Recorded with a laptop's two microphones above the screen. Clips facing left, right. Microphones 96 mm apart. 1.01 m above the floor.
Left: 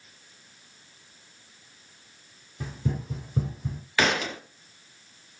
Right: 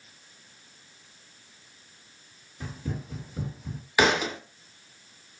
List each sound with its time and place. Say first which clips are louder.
2.6 s running footsteps: left 4 dB; 40° left (ahead or behind), 1.4 m
4.0 s a thud: right 2 dB; 15° right (ahead or behind), 0.5 m